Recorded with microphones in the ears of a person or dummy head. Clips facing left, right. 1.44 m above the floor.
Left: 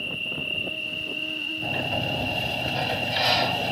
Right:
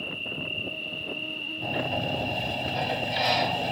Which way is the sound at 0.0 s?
15° left (ahead or behind).